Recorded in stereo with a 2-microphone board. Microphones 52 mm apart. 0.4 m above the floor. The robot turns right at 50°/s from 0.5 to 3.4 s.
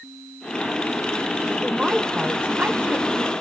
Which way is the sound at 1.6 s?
175° right.